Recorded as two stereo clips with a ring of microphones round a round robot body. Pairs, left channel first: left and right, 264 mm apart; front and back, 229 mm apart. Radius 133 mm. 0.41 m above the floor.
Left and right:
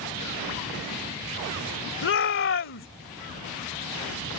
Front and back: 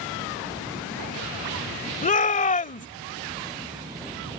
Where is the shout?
55° left.